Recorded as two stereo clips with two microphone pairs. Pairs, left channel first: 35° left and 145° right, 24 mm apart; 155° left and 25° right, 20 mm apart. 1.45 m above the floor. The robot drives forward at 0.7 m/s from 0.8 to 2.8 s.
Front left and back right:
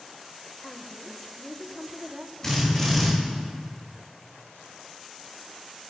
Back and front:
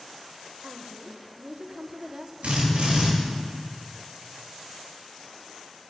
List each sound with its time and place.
0.6 s a woman speaking: 45° right, 1.4 m; by 2.3 s 95° right, 1.0 m
2.4 s a drill: 40° right, 3.5 m